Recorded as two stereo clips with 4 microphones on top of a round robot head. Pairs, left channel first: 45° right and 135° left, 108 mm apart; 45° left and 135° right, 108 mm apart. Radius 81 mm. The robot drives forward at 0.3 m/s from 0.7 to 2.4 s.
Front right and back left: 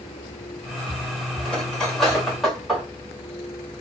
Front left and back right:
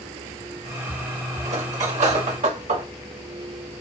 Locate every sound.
1.4 s cutlery clinking: 125° right, 1.4 m; by 2.9 s 135° right, 1.6 m